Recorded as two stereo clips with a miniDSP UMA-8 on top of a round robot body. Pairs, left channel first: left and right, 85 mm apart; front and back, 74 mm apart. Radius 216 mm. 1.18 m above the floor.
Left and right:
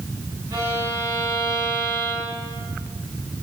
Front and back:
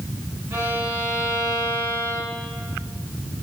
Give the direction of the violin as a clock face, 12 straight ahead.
5 o'clock.